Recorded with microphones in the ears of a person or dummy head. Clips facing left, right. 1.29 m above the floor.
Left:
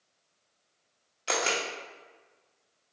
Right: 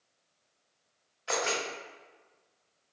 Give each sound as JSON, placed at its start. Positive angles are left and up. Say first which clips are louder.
{"t": 1.3, "sound": "a camera shutter", "louder": "left 1 dB", "side_deg": 35, "distance_m": 0.8}